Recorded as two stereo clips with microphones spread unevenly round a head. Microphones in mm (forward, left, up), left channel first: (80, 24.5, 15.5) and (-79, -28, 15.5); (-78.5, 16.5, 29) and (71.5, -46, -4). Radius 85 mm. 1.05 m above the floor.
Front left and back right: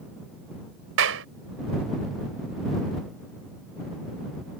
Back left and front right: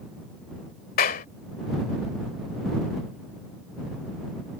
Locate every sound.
1.0 s a clap: 170° right